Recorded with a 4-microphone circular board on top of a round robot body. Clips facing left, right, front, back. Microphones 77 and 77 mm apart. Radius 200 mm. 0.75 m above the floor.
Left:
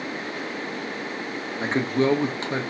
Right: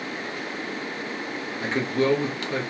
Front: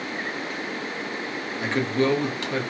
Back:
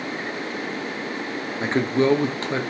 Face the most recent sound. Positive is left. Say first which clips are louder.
# left 2 dB, back 3 dB
turn(degrees=135)